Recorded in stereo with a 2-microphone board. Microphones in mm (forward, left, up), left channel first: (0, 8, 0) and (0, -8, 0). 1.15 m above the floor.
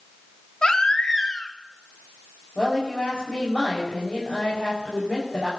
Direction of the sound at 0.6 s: 55° left (ahead or behind).